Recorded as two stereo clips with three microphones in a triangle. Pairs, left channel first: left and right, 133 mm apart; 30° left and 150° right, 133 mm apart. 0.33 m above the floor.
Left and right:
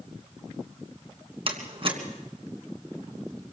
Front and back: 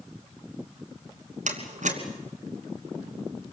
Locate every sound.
1.5 s a door slam: 135° right, 3 m